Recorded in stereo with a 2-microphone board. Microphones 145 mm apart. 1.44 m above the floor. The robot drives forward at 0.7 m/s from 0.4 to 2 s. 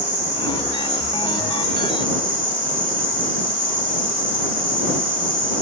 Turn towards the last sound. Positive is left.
turn(degrees=-40)  # may be behind; listen again after turning